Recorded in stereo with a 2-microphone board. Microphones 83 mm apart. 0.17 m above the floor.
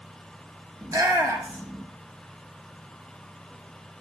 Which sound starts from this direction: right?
A shout, at 0.8 s.